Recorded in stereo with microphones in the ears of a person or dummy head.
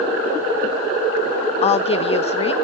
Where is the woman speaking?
35° left (ahead or behind), 0.6 m.